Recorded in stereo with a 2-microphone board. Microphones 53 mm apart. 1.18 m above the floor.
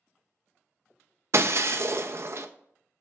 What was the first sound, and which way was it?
Breaking glass, 55° right (ahead or behind).